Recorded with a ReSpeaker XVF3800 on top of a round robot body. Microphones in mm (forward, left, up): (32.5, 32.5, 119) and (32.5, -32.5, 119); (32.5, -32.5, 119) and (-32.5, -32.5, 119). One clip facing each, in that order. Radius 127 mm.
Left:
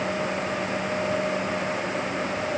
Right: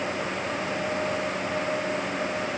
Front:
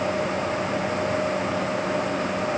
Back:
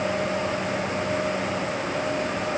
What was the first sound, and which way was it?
Only background noise.